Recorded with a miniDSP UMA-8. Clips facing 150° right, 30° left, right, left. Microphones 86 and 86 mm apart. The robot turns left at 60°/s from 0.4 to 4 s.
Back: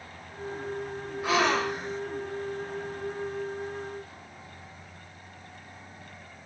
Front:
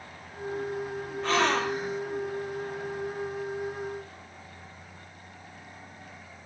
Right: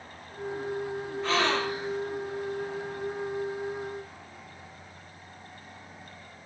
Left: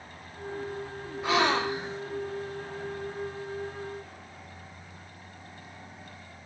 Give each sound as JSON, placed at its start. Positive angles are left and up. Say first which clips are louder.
{"t": 1.2, "sound": "a gasp", "louder": "even, left 2 dB", "azimuth_deg": 145, "distance_m": 0.7}